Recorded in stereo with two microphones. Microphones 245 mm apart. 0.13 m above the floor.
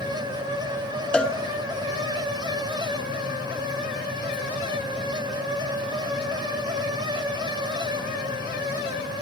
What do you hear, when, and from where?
1.1 s a cowbell: 5° left (ahead or behind), 0.9 m